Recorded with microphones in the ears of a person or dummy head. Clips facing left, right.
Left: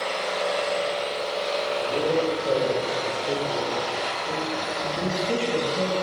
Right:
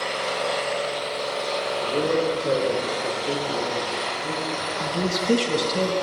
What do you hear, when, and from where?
0.0 s an engine running: 75° right (ahead or behind), 3.5 m
1.8 s a man speaking: 35° right (ahead or behind), 4 m
4.8 s a man speaking: 60° right (ahead or behind), 1.9 m